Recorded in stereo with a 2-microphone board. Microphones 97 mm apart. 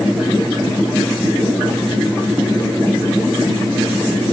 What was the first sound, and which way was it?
Only background noise.